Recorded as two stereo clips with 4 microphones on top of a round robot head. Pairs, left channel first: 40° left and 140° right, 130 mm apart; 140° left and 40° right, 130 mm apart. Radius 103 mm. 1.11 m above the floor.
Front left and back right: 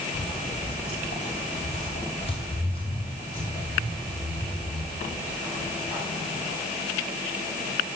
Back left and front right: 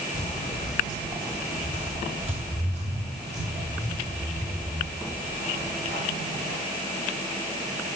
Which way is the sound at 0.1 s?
100° left.